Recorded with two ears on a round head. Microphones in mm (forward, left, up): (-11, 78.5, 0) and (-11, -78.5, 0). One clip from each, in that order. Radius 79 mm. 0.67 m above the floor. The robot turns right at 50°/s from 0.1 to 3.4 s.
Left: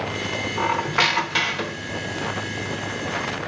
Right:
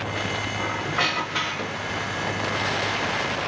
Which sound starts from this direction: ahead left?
A squeak, at 0.6 s.